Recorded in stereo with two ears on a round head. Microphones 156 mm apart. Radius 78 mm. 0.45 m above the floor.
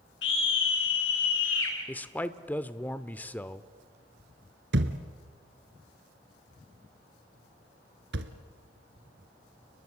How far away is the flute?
No flute in this recording.